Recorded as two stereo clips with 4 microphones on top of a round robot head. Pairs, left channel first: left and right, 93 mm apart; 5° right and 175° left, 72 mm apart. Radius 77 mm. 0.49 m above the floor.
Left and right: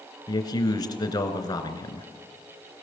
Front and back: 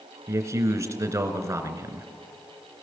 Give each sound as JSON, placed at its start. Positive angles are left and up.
{"t": 0.3, "sound": "a man speaking", "azimuth_deg": 125, "distance_m": 2.5}